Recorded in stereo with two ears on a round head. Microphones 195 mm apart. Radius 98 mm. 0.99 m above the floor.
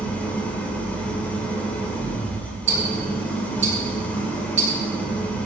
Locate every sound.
0.0 s an engine running: 10° left (ahead or behind), 3 m
2.7 s ticking: 35° right (ahead or behind), 8 m